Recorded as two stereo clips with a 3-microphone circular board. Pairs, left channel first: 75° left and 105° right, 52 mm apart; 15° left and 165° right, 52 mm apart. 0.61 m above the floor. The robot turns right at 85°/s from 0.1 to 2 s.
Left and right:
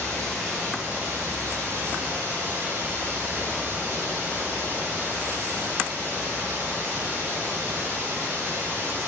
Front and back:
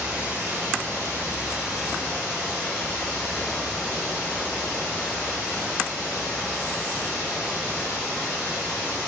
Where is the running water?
135° left, 1.3 m; by 9.1 s 60° right, 1.3 m.